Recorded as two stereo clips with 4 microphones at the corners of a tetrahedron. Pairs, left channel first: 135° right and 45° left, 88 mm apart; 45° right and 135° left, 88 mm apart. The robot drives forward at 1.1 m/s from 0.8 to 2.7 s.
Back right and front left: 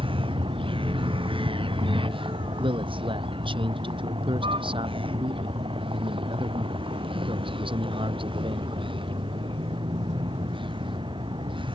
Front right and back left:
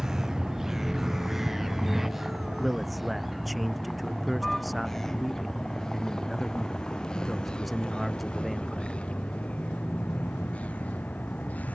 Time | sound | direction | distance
0.0 | a vehicle | 50° left | ?
2.6 | a man speaking | 45° left | ?